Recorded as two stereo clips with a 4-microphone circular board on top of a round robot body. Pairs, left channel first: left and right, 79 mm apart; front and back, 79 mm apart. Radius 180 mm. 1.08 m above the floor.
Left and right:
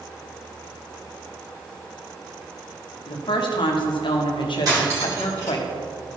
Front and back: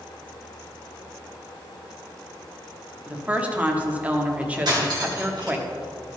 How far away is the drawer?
I don't hear a drawer.